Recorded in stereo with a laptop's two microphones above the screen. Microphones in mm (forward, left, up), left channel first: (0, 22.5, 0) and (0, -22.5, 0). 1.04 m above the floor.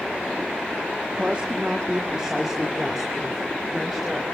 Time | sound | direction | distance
1.1 | a woman speaking | 25° right (ahead or behind) | 1.7 m